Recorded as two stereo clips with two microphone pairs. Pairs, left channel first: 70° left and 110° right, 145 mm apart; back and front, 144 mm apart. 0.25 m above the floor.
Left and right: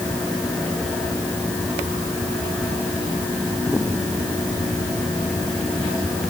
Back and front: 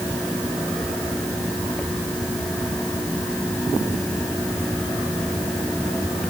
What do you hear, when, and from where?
Only background noise.